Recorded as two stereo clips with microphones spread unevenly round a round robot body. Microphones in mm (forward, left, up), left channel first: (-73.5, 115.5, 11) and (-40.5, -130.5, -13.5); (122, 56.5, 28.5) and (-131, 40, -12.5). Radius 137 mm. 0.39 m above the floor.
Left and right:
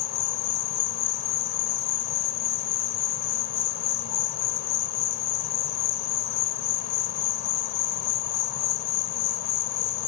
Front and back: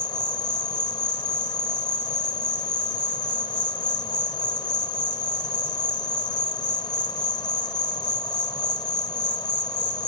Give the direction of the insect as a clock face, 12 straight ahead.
9 o'clock.